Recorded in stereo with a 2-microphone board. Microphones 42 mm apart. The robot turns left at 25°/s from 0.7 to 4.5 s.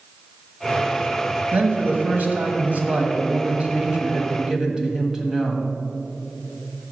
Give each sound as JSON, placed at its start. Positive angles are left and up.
{"t": 1.5, "sound": "a man speaking", "azimuth_deg": -85, "distance_m": 1.4}